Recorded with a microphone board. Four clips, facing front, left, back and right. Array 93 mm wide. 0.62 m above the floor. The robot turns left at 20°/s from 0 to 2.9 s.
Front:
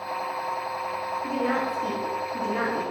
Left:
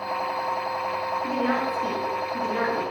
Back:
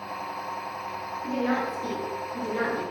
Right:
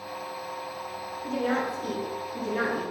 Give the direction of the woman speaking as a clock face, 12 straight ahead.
10 o'clock.